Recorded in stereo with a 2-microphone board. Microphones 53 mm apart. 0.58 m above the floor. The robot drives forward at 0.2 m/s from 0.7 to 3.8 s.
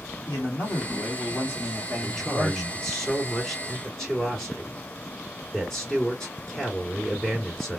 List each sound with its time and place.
0.3 s a man speaking: 35° left (ahead or behind), 1.7 m; by 2.8 s 30° left (ahead or behind), 1.9 m
2.0 s a man speaking: 10° left (ahead or behind), 1.9 m